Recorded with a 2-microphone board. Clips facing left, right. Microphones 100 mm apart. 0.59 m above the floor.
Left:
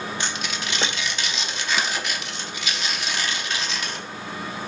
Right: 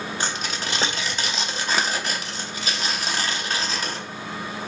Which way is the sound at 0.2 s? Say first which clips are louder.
Right 1 dB; 35° right (ahead or behind).